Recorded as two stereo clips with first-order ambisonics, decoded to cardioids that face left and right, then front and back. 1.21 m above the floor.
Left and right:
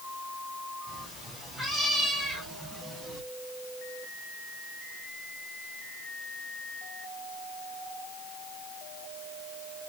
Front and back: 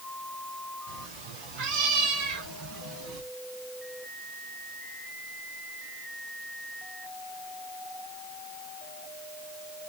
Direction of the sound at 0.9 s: 160° left.